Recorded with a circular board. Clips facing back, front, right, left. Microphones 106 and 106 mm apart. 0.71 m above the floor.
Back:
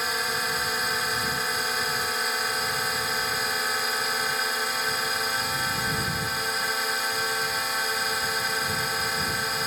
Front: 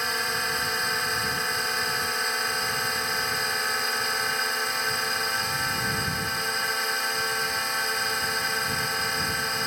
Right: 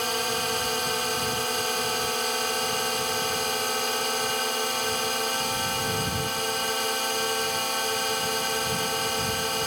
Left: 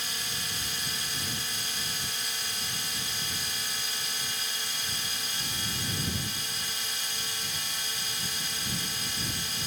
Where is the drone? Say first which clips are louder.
Even, right 13 dB; 90° right.